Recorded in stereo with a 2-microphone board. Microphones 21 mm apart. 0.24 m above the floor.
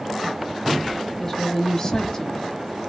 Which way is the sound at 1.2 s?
20° left (ahead or behind).